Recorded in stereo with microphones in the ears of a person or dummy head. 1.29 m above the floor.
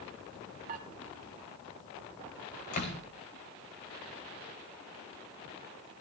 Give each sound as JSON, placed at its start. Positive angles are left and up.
{"t": 0.7, "sound": "dishes clattering", "side_deg": -45, "distance_m": 2.5}
{"t": 2.7, "sound": "a door slam", "side_deg": 50, "distance_m": 4.5}